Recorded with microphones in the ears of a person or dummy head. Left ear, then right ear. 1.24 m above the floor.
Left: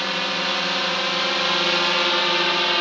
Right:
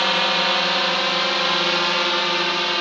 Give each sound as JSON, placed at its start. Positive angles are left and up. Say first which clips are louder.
{"t": 0.0, "sound": "a drone", "louder": "right 5 dB", "side_deg": -30}